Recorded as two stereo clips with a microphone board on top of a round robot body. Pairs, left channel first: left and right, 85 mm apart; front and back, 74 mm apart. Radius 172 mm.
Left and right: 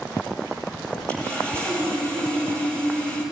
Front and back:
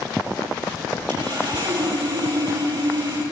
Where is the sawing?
165° left, 10 m.